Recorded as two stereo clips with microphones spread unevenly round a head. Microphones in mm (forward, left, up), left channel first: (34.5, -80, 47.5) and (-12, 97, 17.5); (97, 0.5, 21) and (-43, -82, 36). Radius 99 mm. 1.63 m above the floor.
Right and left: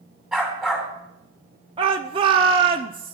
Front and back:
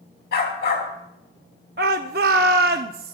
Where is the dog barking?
15° left, 3 m.